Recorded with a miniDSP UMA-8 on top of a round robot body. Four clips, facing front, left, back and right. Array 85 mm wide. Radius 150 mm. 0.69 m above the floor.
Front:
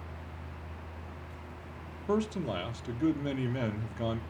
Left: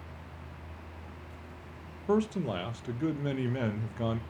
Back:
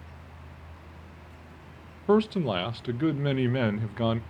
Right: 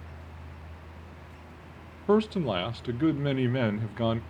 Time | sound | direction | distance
2.1 | a man speaking | 150° right | 0.9 m